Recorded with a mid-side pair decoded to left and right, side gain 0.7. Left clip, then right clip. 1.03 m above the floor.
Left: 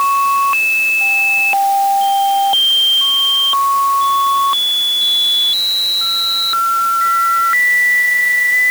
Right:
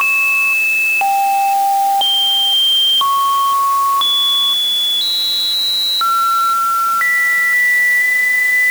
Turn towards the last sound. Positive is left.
No sound to turn to.